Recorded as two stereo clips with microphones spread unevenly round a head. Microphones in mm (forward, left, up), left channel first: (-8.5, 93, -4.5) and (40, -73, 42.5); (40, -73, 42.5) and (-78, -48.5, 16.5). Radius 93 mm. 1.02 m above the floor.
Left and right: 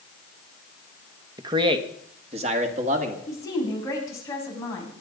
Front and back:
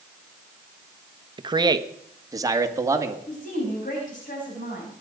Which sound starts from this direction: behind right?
A man speaking, at 1.4 s.